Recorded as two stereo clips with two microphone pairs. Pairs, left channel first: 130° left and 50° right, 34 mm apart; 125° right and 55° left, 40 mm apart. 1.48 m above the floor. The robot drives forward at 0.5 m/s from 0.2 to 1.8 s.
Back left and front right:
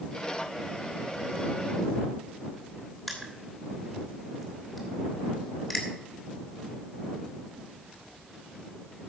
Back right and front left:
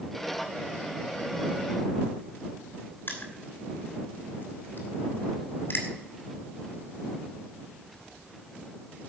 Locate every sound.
3.1 s crushing: 150° right, 3 m